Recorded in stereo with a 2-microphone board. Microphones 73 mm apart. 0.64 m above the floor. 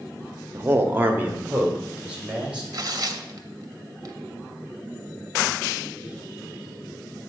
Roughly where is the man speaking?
Right.